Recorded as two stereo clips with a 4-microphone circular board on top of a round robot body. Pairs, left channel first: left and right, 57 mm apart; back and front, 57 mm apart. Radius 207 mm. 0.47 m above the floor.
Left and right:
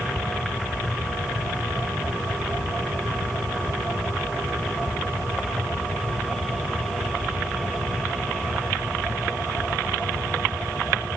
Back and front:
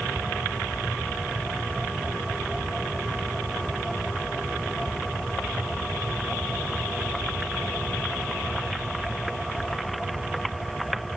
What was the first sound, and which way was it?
Only background noise.